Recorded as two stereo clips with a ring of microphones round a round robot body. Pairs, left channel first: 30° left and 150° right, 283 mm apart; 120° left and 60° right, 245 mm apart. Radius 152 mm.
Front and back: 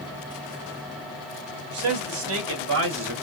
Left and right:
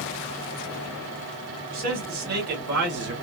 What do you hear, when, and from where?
1.7 s a man speaking: 120° right, 3 m; by 3.1 s 105° right, 2 m